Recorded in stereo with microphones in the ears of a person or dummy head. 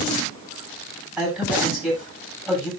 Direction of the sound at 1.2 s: Centre (ahead or behind).